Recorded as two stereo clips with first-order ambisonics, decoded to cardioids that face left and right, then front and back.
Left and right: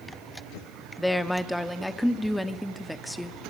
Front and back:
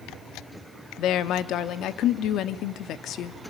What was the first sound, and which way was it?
A woman speaking, straight ahead.